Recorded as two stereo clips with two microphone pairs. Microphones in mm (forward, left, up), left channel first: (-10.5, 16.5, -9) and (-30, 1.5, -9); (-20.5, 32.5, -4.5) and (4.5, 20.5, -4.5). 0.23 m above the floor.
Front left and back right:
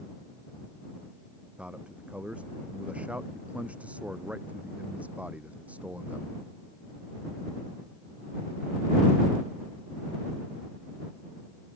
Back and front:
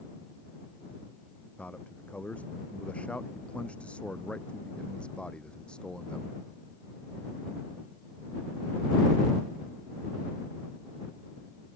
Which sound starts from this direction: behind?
A man speaking, at 1.6 s.